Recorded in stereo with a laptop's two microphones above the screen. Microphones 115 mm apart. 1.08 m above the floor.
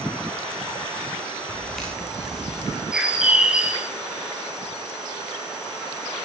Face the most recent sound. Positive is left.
turn(degrees=-5)  # may be behind; listen again after turning